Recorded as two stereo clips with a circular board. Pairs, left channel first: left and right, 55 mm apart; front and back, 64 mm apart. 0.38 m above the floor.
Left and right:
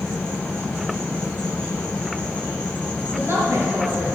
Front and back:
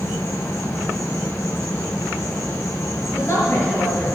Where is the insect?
20° left, 4 m.